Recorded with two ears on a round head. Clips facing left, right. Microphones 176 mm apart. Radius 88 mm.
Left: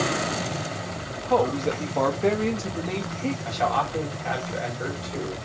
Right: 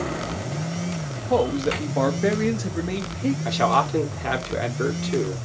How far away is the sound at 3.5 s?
About 1.9 m.